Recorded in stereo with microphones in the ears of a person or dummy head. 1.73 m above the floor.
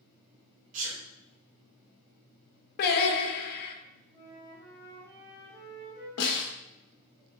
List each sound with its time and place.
0.7 s a sneeze: 45° right (ahead or behind), 1.0 m
2.8 s singing: 50° left (ahead or behind), 0.5 m
4.1 s a flute: 15° left (ahead or behind), 1.9 m
6.2 s a snare drum: 80° left, 0.8 m